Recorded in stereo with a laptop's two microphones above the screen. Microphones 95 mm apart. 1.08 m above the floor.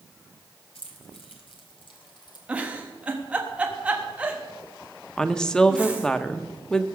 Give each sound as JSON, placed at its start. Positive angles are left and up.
{"t": 0.8, "sound": "keys jangling", "side_deg": 85, "distance_m": 2.0}
{"t": 2.5, "sound": "a giggle", "side_deg": -15, "distance_m": 1.2}
{"t": 5.2, "sound": "a woman speaking", "side_deg": 10, "distance_m": 1.1}